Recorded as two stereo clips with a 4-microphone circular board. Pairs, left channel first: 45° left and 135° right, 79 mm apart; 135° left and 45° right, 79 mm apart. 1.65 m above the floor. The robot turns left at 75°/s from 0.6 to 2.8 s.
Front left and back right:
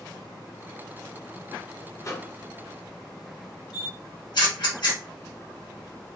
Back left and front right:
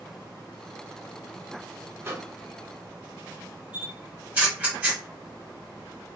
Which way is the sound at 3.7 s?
20° left.